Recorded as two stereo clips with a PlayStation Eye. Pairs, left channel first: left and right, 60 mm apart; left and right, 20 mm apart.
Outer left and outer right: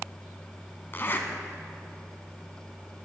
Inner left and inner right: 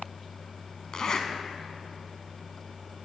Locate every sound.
0.9 s a zipper: 40° left (ahead or behind), 1.0 m